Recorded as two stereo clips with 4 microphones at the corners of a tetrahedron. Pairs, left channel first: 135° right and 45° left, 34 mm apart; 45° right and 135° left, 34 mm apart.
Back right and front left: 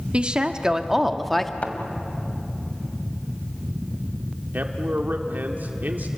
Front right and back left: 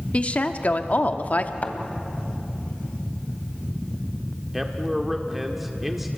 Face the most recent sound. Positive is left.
turn(degrees=55)